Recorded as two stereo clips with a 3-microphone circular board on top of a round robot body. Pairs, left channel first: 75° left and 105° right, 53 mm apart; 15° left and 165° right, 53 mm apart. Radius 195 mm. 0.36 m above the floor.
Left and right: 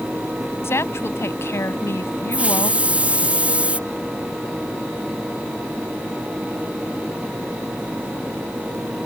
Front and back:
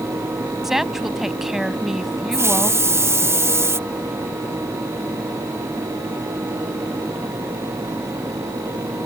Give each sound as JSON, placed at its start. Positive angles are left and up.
{"t": 0.6, "sound": "a woman speaking", "azimuth_deg": 110}
{"t": 2.3, "sound": "a hiss", "azimuth_deg": -165}